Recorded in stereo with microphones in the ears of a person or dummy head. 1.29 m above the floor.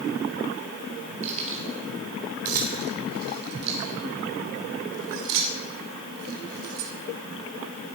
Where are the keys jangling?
40° right (ahead or behind), 4 m; by 6.9 s 80° right, 3.5 m.